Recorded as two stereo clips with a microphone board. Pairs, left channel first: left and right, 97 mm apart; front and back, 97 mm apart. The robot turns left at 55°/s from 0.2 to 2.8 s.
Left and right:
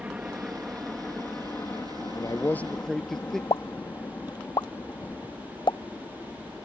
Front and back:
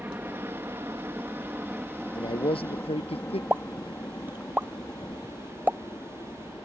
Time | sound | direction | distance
0.0 | a helicopter | 150° right | ?
2.1 | a man speaking | 40° left | ?
3.5 | a pop | 110° left | ?